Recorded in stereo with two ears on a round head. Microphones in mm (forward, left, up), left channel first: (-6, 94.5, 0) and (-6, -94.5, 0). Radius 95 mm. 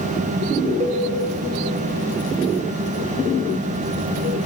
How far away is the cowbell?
About 1.3 m.